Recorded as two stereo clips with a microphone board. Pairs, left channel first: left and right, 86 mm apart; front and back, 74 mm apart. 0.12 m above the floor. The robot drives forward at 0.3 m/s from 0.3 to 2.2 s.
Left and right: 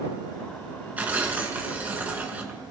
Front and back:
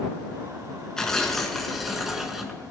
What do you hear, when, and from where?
1.0 s tearing paper: 65° right, 1.6 m; by 2.6 s 100° right, 1.6 m